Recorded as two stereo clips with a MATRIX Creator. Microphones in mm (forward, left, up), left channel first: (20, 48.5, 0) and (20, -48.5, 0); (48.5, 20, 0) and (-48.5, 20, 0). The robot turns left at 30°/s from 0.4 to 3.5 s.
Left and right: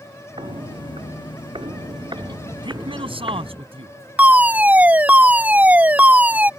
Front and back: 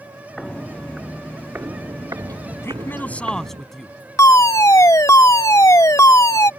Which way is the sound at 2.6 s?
60° right.